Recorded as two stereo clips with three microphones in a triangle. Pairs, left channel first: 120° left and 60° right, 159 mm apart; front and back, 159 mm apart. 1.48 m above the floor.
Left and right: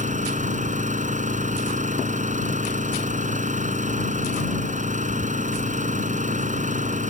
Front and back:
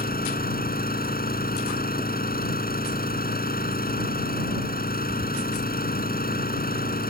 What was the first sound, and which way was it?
An engine running, 20° right.